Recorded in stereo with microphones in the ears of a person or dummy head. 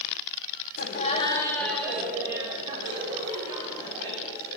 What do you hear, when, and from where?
0.8 s laughter: 50° left (ahead or behind), 1.2 m; by 4.6 s 35° right (ahead or behind), 4 m